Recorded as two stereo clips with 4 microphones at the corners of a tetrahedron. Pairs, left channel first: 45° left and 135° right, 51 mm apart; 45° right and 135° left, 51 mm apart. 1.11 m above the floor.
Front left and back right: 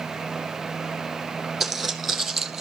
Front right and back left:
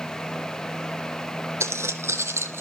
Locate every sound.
1.6 s footsteps: 135° left, 3 m; by 2.6 s 140° left, 2.0 m